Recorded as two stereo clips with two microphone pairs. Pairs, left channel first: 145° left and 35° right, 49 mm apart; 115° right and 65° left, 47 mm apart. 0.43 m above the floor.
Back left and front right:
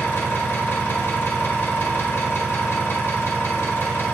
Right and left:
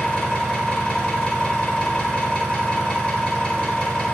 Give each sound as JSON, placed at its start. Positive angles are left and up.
{"t": 0.0, "sound": "an engine running", "azimuth_deg": 180, "distance_m": 0.8}